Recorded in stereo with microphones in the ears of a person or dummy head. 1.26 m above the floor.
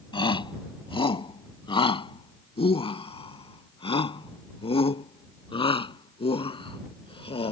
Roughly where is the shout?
Left.